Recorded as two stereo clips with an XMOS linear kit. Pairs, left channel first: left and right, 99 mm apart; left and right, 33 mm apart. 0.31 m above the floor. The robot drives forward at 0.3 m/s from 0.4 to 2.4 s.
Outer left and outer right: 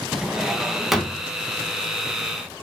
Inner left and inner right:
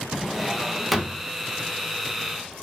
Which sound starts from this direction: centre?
A drawer, at 0.1 s.